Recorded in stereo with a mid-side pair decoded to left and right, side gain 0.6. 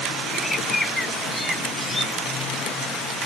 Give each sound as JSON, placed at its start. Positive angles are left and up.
{"t": 0.3, "sound": "a bird", "azimuth_deg": 20}